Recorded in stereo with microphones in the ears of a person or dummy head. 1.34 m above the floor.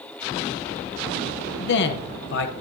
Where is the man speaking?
60° left (ahead or behind), 0.7 m.